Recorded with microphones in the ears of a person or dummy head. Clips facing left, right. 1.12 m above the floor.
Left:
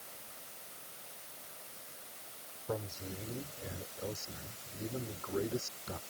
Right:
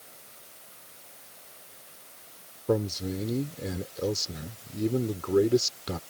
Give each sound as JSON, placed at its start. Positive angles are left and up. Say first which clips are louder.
{"t": 2.7, "sound": "a man speaking", "louder": "right 13 dB", "side_deg": -80}